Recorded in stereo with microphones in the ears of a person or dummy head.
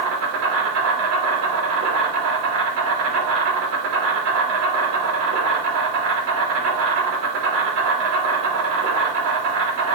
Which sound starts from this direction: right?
An insect, at 0.0 s.